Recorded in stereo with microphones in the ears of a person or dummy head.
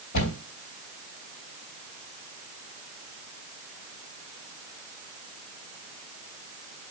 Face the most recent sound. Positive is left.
turn(degrees=60)  # may be behind; listen again after turning